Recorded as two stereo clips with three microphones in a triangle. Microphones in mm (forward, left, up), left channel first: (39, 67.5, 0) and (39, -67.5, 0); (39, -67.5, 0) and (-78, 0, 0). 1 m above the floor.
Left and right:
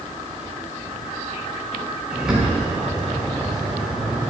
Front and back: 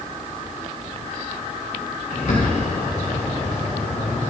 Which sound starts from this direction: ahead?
A bird, at 2.1 s.